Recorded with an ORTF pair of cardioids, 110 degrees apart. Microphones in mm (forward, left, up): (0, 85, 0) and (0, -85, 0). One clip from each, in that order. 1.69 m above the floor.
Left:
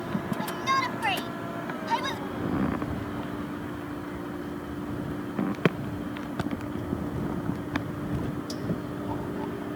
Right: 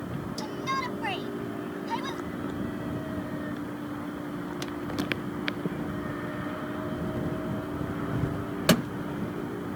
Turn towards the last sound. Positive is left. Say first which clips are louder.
# left 5 dB
turn(degrees=55)